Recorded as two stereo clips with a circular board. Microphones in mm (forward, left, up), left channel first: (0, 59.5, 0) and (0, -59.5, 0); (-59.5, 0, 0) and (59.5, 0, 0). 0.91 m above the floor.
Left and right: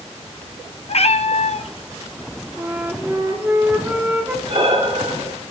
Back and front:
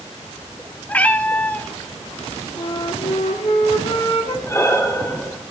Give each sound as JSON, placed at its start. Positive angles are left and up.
{"t": 0.9, "sound": "a cat meowing", "azimuth_deg": 105, "distance_m": 0.6}
{"t": 2.6, "sound": "a flute", "azimuth_deg": -155, "distance_m": 1.8}
{"t": 4.5, "sound": "breathing", "azimuth_deg": -115, "distance_m": 2.0}